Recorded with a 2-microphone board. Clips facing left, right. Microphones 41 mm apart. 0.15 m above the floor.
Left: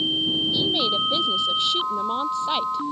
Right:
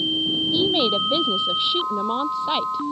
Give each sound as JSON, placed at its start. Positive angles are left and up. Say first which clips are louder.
{"t": 0.5, "sound": "a woman speaking", "louder": "right 2 dB", "side_deg": -20}